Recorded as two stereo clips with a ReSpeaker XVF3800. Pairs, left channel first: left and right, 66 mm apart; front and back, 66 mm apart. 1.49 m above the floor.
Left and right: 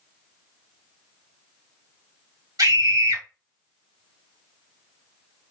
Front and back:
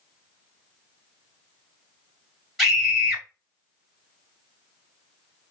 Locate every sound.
2.6 s a scream: 90° right, 3 m